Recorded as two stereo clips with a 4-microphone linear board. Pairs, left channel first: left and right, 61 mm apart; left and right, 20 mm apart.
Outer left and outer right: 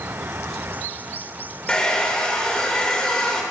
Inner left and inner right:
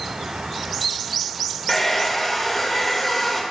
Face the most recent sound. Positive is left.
turn(degrees=10)  # may be behind; listen again after turning